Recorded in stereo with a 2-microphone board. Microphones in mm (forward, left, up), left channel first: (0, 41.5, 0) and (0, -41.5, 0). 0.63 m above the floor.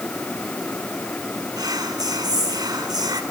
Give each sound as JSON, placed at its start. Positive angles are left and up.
{"t": 1.6, "sound": "whispering", "side_deg": -50, "distance_m": 2.0}